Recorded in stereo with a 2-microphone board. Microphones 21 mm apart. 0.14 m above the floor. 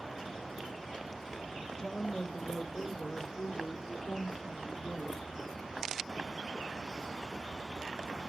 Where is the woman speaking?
40° left (ahead or behind), 2.5 m; by 5.2 s 70° left (ahead or behind), 4 m.